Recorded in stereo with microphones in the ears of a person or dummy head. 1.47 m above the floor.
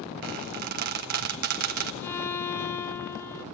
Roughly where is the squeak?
Right.